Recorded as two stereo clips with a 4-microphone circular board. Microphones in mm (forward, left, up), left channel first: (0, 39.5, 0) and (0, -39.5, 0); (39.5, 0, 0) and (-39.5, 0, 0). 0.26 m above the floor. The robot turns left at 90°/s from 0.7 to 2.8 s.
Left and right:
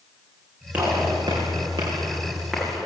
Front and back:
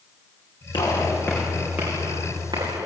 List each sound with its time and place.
0.7 s a gunshot: 15° right, 9 m; by 2.9 s 160° left, 9 m